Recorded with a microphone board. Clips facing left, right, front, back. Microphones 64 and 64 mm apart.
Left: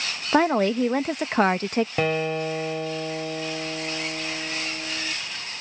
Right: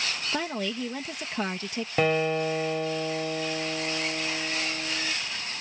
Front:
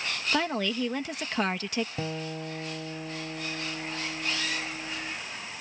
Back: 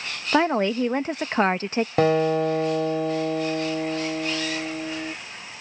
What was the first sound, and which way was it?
A woman speaking, 125° left.